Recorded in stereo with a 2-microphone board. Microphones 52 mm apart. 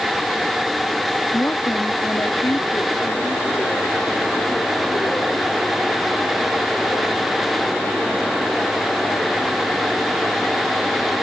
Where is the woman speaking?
60° left (ahead or behind); by 9.6 s 75° left (ahead or behind).